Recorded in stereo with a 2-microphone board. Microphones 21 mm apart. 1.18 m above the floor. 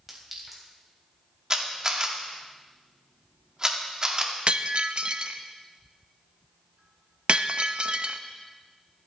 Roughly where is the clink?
Centre.